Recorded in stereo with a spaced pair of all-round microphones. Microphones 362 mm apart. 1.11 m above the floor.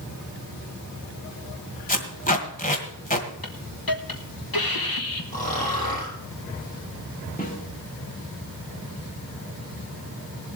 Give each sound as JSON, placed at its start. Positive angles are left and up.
{"t": 1.9, "sound": "tape being pulled", "side_deg": 25, "distance_m": 1.9}
{"t": 3.4, "sound": "a hiss", "side_deg": 70, "distance_m": 1.4}
{"t": 5.3, "sound": "snoring", "side_deg": 20, "distance_m": 6.0}
{"t": 7.4, "sound": "a snare drum", "side_deg": 25, "distance_m": 1.9}